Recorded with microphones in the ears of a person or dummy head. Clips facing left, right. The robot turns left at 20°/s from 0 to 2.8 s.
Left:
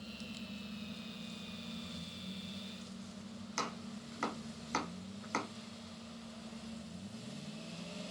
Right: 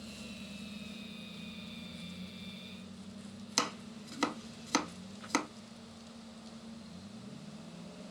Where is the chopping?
50° right (ahead or behind), 0.9 m.